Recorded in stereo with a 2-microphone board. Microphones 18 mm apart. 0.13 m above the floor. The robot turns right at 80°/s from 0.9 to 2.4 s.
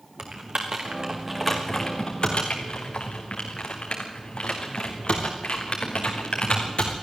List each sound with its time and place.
0.2 s typing on a keyboard: 60° right (ahead or behind), 3.5 m; by 6.9 s 60° left (ahead or behind), 3.5 m